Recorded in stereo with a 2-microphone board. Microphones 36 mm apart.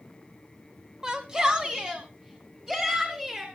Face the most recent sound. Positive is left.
turn(degrees=-20)  # may be behind; listen again after turning